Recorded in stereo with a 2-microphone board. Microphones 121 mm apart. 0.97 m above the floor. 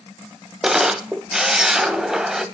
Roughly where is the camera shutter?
Centre.